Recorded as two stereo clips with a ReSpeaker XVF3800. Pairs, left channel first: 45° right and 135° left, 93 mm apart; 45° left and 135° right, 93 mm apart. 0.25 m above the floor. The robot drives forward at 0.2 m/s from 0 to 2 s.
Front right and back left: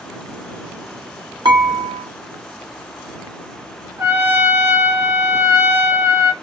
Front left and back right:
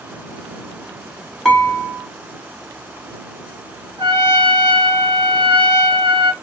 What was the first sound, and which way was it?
Dishes clattering, 135° left.